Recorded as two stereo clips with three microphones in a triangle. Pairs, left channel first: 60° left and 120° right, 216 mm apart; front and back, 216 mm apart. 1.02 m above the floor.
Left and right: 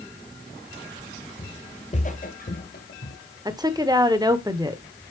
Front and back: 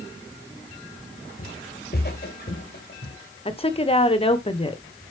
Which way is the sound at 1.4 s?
5° right.